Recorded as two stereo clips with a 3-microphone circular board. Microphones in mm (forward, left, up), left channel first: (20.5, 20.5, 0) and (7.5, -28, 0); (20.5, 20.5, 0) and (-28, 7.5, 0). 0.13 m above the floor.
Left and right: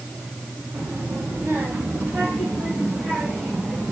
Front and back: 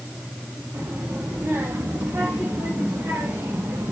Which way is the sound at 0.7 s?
135° right.